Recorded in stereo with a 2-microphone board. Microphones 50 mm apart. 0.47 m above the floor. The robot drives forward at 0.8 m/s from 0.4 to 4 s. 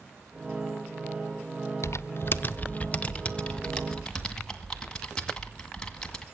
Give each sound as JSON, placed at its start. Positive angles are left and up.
{"t": 1.8, "sound": "typing on a keyboard", "side_deg": 60, "distance_m": 0.5}